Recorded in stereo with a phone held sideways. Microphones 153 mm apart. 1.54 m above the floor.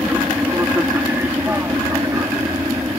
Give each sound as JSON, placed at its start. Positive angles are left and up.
{"t": 0.0, "sound": "an aircraft", "side_deg": -10}